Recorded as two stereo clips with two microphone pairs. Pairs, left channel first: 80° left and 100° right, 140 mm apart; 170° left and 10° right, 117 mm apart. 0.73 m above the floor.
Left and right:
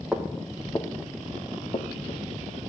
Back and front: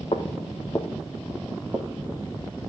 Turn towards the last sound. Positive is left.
turn(degrees=35)